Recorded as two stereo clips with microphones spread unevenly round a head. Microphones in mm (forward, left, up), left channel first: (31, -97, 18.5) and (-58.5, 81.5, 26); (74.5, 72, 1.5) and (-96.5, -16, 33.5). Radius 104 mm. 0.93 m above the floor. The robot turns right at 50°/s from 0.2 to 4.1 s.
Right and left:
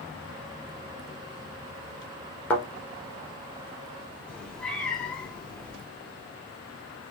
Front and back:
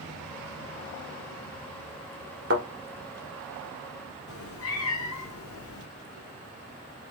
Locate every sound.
2.5 s a thud: 145° right, 1.5 m; by 2.6 s 140° right, 1.5 m
4.3 s a cat meowing: 25° left, 0.8 m